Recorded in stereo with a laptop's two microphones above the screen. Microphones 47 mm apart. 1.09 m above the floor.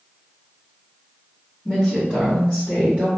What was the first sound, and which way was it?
A woman speaking, 15° left (ahead or behind).